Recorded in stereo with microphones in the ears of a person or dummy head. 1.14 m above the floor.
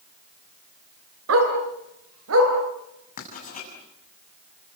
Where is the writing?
45° left (ahead or behind), 7.5 m.